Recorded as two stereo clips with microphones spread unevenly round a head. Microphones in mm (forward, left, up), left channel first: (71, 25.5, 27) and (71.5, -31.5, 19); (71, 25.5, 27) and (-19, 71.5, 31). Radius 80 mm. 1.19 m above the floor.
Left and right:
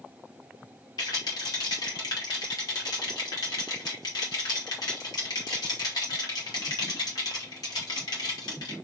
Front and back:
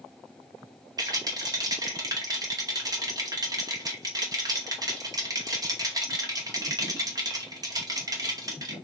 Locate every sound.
1.0 s a rattle: 100° left, 2.5 m